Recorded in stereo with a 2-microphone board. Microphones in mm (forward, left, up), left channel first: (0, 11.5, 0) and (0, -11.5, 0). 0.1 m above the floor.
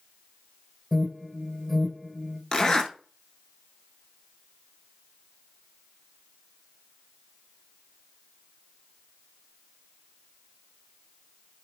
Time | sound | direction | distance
0.9 | an alarm | 10° left (ahead or behind) | 3 m
2.5 | a zipper | 30° left (ahead or behind) | 0.8 m